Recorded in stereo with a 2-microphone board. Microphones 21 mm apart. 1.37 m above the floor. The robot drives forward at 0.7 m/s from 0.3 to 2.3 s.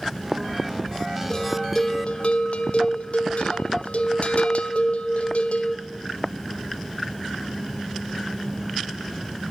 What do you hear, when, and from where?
1.3 s a bell: 30° left (ahead or behind), 0.9 m; by 5.8 s 70° left (ahead or behind), 0.5 m